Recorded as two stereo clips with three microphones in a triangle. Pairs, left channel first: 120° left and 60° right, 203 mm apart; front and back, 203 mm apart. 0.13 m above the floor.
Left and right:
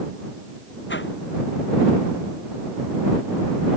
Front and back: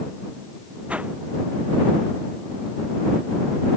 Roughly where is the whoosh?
Left.